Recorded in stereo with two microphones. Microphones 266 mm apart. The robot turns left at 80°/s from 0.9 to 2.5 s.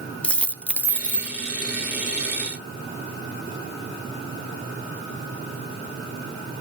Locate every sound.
0.2 s a dropped coin: 170° left, 1.0 m; by 1.4 s 135° left, 1.0 m